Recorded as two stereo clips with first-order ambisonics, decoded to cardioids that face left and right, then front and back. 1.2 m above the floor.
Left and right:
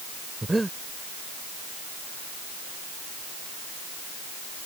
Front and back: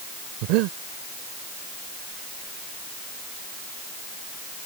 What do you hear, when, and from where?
0.4 s breathing: 175° right